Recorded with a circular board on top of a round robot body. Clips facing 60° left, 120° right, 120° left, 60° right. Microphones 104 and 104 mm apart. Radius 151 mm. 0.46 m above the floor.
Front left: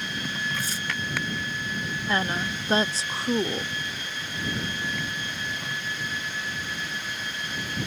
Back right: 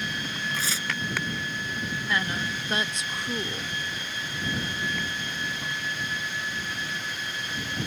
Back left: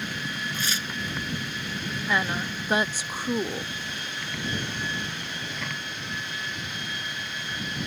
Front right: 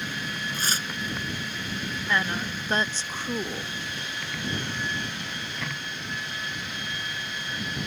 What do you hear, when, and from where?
0.5 s tearing paper: 115° right
2.1 s a woman speaking: 50° left